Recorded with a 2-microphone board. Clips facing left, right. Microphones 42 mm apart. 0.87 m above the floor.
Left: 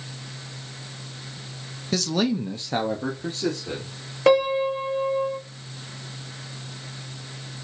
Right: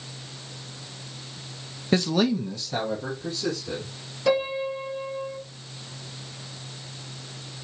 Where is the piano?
55° left (ahead or behind), 1.8 m.